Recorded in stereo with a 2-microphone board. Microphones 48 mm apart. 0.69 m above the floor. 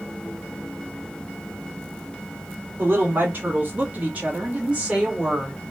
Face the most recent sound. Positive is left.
turn(degrees=-15)  # may be behind; listen again after turning